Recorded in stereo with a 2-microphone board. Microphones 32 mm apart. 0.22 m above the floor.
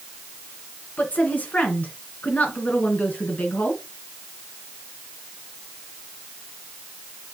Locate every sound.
1.0 s a woman speaking: 60° left (ahead or behind), 2.5 m